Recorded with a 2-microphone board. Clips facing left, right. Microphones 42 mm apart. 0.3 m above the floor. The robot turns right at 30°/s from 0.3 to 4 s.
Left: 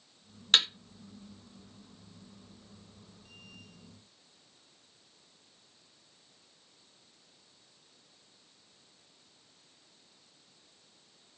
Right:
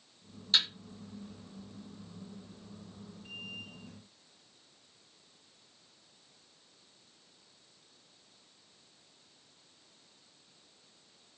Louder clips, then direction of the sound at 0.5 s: Left 4 dB; 65° left (ahead or behind).